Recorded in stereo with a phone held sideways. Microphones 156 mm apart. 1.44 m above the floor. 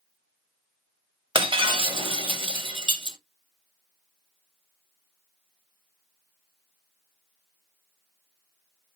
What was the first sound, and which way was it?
Breaking glass, 35° right (ahead or behind).